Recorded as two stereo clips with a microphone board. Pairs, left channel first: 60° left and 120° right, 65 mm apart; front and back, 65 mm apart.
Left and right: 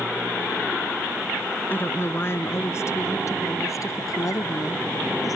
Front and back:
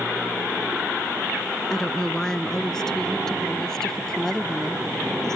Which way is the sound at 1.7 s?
70° left.